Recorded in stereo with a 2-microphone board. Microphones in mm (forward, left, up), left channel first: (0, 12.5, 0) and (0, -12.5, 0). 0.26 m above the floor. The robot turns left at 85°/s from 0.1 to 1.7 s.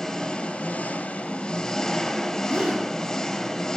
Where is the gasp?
50° right (ahead or behind), 5 m.